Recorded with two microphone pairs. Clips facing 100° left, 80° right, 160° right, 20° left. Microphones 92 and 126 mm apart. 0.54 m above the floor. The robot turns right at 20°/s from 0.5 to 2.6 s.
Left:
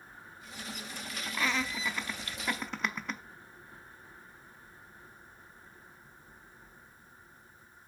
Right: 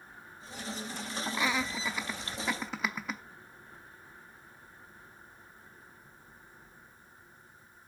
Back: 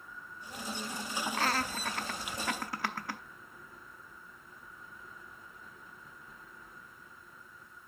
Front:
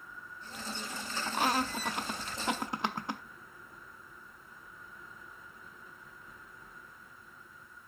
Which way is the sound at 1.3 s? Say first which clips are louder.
Even, front 4 dB; 25° right.